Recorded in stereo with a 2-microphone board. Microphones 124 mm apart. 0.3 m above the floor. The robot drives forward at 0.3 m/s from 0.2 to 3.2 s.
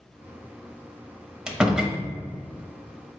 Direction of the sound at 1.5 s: 10° right (ahead or behind).